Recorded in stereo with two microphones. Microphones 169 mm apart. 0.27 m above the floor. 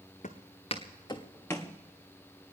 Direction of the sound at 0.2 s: 50° left (ahead or behind).